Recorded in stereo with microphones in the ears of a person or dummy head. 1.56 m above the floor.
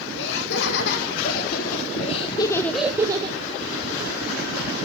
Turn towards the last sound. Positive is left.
turn(degrees=-35)  # may be behind; listen again after turning